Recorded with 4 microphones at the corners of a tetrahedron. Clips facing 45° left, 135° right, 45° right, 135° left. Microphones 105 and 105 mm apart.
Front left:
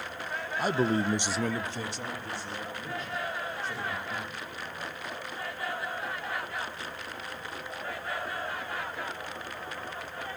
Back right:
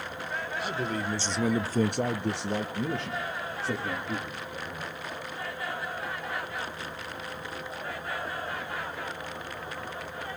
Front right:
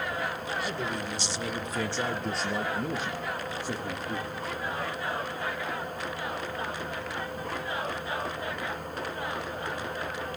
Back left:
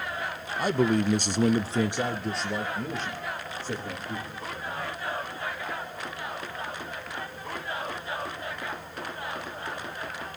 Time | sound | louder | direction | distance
0.6 | a man speaking | front left 7 dB, back left 13 dB | 90° left | 1.2 m